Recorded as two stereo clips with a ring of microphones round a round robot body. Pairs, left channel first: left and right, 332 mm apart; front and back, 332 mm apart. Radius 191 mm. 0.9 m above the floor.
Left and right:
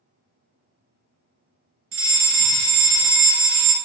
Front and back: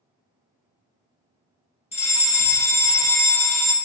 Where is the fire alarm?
65° right, 1.5 m.